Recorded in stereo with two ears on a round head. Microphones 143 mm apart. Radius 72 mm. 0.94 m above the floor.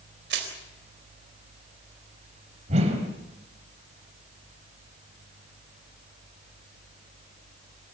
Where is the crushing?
75° right (ahead or behind), 4 m.